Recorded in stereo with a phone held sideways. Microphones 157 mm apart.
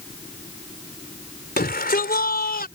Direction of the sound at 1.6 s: 75° left (ahead or behind).